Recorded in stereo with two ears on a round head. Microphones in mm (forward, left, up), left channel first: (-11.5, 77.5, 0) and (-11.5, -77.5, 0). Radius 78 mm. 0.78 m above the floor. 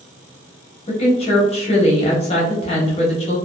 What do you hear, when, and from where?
0.9 s a woman speaking: 35° left (ahead or behind), 0.9 m